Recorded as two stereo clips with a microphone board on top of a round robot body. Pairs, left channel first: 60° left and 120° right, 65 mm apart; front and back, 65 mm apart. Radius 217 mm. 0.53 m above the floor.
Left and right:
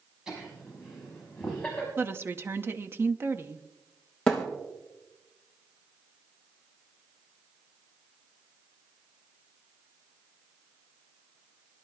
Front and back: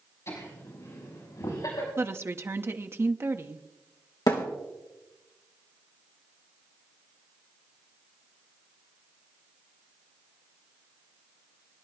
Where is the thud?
20° right, 2.5 m.